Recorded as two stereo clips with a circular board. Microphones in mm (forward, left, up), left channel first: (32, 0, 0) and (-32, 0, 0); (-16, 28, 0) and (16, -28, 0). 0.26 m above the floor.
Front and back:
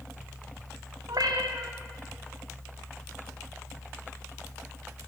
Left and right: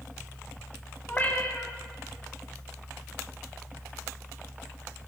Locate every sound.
1.1 s a cat meowing: 175° right, 6.5 m